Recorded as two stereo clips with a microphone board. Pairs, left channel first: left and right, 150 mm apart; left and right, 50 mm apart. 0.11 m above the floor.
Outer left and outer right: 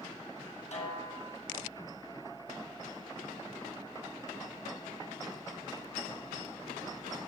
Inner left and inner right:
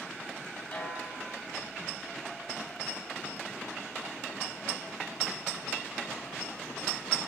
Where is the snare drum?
45° left (ahead or behind), 2.5 m.